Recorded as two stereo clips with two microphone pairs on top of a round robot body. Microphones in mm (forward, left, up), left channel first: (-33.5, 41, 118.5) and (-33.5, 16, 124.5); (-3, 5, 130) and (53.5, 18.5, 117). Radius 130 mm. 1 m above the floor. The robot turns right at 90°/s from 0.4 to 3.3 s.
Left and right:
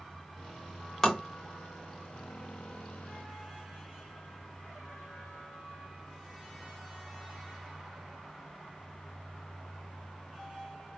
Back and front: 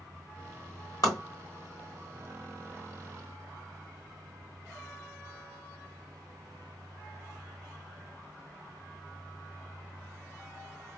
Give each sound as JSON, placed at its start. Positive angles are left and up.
{"t": 1.0, "sound": "tapping", "azimuth_deg": -170, "distance_m": 0.8}